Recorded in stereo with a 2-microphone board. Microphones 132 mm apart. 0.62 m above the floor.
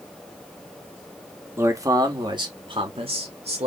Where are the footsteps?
I don't hear footsteps.